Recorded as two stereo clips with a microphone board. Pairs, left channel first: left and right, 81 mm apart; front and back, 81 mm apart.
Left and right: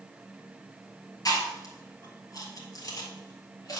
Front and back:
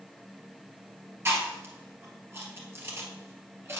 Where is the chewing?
125° left, 2 m.